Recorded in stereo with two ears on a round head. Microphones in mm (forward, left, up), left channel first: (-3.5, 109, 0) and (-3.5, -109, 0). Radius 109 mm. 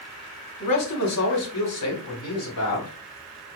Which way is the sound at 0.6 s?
80° left.